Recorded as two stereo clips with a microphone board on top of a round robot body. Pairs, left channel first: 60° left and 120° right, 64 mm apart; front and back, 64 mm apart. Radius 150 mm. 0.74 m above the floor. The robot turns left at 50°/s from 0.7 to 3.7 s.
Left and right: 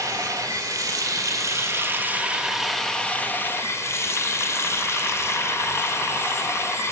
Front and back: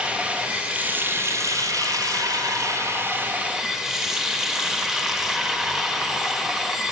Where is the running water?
110° right, 1.0 m; by 6.9 s 100° left, 1.0 m.